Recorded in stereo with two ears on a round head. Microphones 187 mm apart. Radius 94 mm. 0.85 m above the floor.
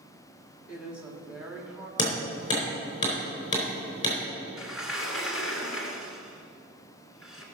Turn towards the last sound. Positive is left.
turn(degrees=0)  # may be behind; listen again after turning